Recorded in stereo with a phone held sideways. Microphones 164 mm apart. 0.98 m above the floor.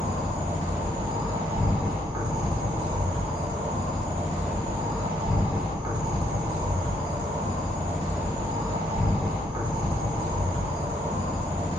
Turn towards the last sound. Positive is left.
turn(degrees=-25)  # may be behind; listen again after turning